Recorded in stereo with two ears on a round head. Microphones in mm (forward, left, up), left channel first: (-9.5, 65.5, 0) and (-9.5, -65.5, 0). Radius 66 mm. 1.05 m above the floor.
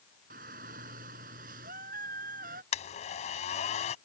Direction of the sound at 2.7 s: 50° left (ahead or behind).